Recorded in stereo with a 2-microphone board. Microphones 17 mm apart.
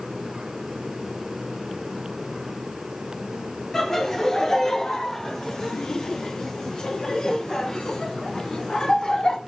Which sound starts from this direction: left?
Laughter, at 3.7 s.